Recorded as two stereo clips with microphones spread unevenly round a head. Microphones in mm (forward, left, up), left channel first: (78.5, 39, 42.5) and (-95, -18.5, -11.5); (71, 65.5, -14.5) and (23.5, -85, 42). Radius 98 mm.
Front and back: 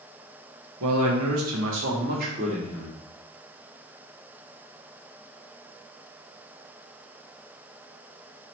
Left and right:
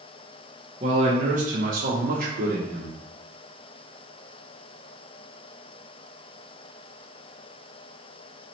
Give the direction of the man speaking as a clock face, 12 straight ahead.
5 o'clock.